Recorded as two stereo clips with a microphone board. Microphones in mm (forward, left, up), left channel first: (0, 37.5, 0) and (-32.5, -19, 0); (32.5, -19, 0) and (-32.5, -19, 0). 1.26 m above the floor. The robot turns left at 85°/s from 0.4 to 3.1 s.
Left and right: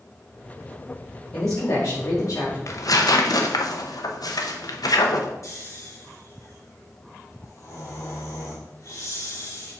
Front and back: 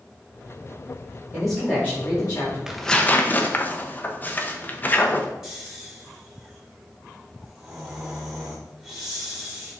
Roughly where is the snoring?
Left.